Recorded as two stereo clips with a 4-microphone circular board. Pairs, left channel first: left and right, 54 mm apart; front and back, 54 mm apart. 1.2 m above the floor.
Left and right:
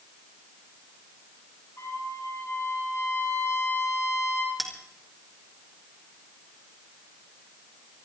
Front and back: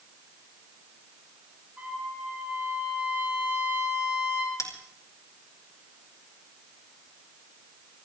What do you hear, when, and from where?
1.8 s a trumpet: 115° left, 8.5 m
4.6 s a bell: straight ahead, 3.5 m